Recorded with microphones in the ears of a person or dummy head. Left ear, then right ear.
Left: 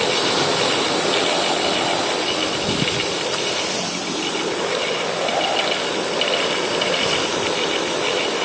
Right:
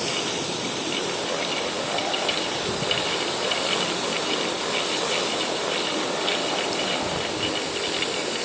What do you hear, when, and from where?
Only background noise.